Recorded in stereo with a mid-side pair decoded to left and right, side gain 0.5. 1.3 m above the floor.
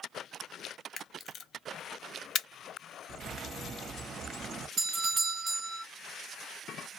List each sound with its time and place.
1.0 s a camera shutter: 50° left, 0.6 m
3.1 s a bird: 60° right, 0.9 m
4.8 s a doorbell: 50° right, 0.8 m